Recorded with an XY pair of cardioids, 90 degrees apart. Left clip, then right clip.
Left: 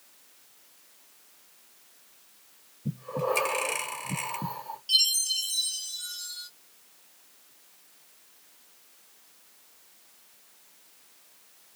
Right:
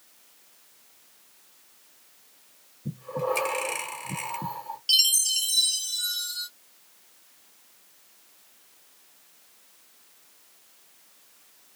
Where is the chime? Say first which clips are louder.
Right 2 dB; 65° right, 1.0 m.